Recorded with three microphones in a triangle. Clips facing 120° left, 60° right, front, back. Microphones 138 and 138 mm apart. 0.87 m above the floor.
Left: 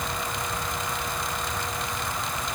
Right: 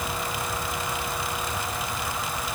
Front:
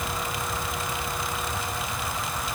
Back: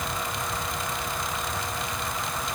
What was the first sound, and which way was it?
Only background noise.